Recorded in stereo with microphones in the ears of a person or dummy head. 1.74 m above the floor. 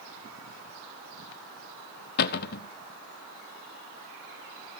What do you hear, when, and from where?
2.2 s a cupboard door: 55° left (ahead or behind), 0.9 m